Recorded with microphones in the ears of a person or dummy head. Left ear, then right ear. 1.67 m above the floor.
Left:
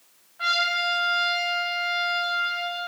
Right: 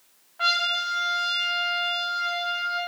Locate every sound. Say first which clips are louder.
0.4 s a trumpet: even; 35° right (ahead or behind), 1.1 m